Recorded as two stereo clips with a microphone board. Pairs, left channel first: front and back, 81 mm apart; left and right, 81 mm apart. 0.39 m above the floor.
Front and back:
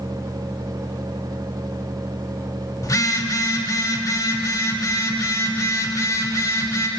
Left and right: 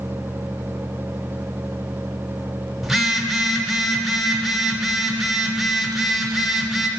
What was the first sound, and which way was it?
A phone buzzing, 5° right.